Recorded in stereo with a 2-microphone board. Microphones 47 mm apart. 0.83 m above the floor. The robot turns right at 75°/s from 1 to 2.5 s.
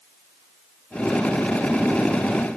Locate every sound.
Only background noise.